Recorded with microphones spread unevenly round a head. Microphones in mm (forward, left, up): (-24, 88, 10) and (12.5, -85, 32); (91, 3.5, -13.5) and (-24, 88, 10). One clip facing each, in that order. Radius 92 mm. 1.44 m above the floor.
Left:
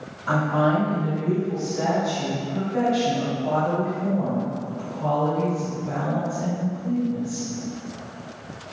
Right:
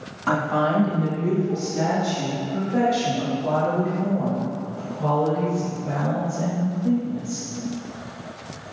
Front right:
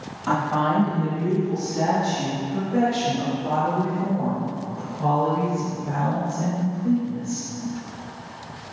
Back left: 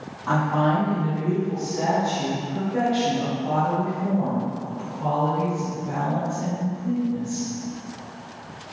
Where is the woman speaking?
95° right, 2.5 m; by 7.5 s 35° right, 6 m.